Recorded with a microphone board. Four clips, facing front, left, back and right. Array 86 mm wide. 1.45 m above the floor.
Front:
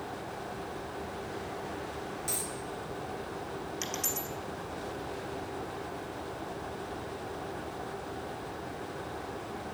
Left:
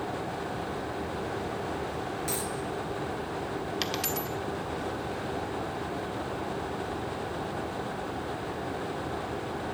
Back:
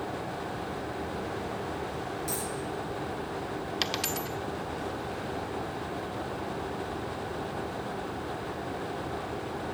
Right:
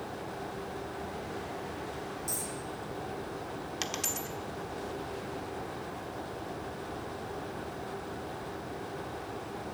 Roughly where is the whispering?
I don't hear whispering.